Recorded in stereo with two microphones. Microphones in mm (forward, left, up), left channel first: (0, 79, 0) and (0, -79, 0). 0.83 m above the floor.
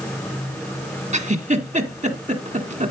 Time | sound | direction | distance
1.1 | a giggle | 50° right (ahead or behind) | 1.5 m